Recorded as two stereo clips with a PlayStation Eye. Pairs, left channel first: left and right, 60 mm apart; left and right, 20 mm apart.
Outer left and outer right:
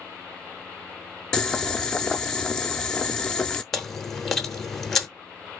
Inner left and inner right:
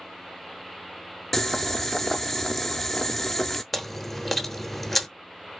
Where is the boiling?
10° left (ahead or behind), 0.6 m.